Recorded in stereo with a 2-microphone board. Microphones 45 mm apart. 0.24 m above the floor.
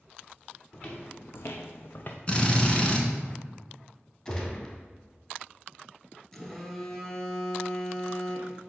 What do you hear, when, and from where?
0.7 s footsteps: 40° left (ahead or behind), 1.4 m; by 2.2 s 35° left (ahead or behind), 0.9 m
2.3 s a drill: 25° left (ahead or behind), 1.1 m
4.2 s a gunshot: 25° left (ahead or behind), 1.7 m
6.3 s a phone buzzing: 5° left (ahead or behind), 1.0 m